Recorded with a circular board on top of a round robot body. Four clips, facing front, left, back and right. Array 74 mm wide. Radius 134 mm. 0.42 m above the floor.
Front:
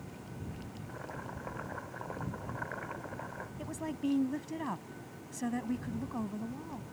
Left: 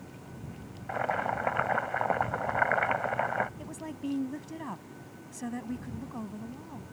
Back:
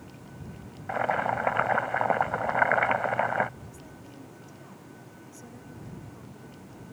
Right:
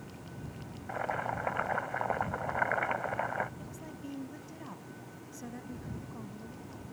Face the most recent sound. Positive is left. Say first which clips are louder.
# left 6 dB, front 10 dB
turn(degrees=30)